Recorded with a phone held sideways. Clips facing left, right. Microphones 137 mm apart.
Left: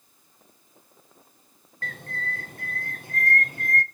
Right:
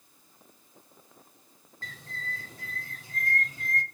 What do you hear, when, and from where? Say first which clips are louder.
1.8 s a bird: left 7 dB; 60° left (ahead or behind), 0.7 m